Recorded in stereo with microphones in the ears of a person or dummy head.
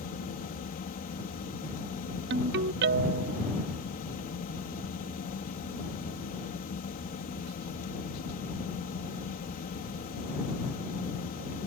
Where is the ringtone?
55° right (ahead or behind).